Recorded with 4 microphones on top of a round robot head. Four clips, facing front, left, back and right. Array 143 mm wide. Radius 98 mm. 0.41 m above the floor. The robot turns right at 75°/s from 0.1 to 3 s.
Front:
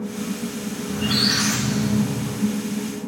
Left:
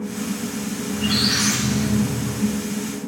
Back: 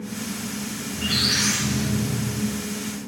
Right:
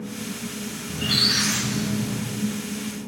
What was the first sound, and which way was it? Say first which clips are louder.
A squeak: left 4 dB, front 5 dB; 35° right.